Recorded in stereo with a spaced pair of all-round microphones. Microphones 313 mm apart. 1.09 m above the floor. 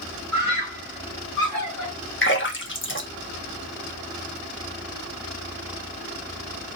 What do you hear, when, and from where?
0.3 s a scream: 75° left (ahead or behind), 1.5 m; by 1.9 s 70° left (ahead or behind), 1.6 m
2.2 s a splash: 40° left (ahead or behind), 1.2 m